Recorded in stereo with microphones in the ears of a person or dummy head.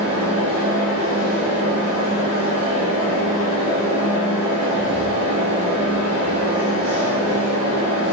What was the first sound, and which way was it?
A fan, 70° right (ahead or behind).